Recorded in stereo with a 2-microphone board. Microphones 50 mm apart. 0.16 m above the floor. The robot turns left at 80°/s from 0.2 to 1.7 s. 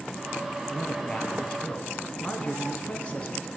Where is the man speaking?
5° left (ahead or behind), 1.1 m; by 3.5 s 25° left (ahead or behind), 1.1 m.